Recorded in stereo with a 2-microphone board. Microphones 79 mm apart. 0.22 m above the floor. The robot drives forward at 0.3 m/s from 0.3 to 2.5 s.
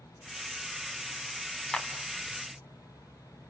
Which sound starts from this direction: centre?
A clap, at 1.7 s.